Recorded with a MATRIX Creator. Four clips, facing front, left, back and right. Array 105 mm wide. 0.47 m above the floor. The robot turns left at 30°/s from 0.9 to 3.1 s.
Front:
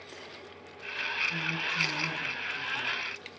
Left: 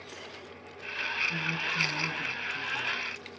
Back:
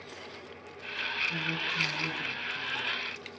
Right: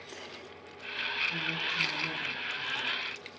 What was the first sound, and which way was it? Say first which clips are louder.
A woman speaking: left 2 dB, even; 90° left.